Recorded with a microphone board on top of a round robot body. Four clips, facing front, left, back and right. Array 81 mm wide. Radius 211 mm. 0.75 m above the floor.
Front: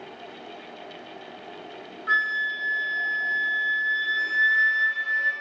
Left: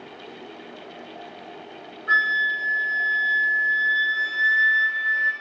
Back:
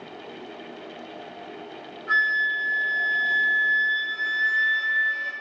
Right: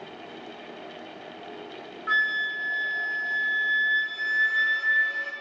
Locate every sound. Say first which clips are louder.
2.1 s a flute: left 5 dB, back 2 dB; 70° right, 2 m